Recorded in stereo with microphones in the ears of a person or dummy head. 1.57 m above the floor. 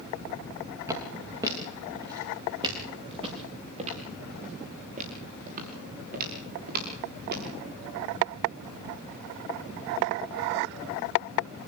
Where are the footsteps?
15° right (ahead or behind), 7.5 m; by 7.5 s 55° right (ahead or behind), 8 m.